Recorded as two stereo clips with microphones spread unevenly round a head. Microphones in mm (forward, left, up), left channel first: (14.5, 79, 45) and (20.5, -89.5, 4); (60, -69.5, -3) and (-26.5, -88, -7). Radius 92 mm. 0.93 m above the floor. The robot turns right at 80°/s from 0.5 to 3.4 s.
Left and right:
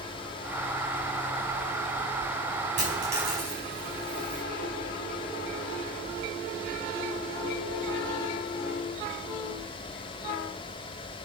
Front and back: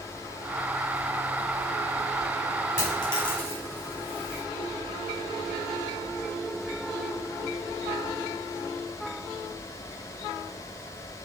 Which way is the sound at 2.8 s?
40° right.